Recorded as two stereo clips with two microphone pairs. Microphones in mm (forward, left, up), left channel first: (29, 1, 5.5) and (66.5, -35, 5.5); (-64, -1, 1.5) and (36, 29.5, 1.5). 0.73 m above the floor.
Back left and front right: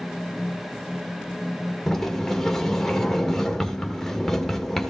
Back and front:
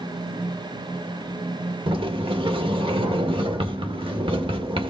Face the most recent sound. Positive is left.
turn(degrees=55)